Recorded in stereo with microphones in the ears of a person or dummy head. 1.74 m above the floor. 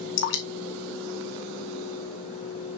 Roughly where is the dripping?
Left.